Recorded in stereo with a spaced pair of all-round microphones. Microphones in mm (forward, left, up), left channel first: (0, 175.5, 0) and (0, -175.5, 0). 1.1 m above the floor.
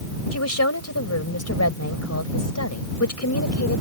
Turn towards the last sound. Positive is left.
turn(degrees=45)  # may be behind; listen again after turning